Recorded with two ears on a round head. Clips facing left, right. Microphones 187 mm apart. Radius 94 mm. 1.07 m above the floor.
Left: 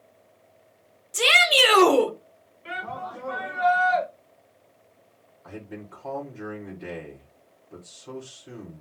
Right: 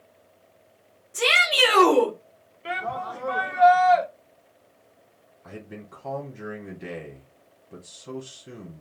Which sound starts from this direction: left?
A shout, at 1.1 s.